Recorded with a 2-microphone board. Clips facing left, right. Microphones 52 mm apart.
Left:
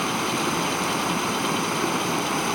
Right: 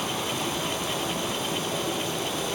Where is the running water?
60° left (ahead or behind), 3.5 m.